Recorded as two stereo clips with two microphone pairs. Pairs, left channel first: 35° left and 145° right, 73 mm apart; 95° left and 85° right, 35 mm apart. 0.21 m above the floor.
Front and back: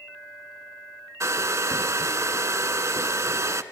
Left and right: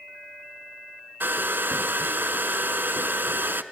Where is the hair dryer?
100° right, 0.6 m.